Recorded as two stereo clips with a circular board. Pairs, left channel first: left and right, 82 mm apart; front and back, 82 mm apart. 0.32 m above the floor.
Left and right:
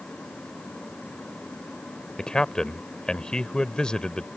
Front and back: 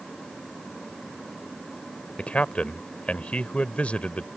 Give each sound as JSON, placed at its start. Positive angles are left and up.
{"t": 2.2, "sound": "a man speaking", "azimuth_deg": 30}